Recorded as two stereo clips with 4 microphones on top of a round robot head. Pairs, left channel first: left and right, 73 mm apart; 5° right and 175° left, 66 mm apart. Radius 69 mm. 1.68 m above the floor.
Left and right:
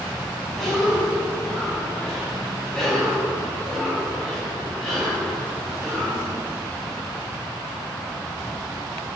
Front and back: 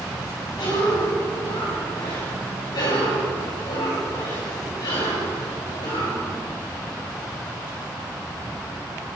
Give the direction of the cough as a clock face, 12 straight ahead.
12 o'clock.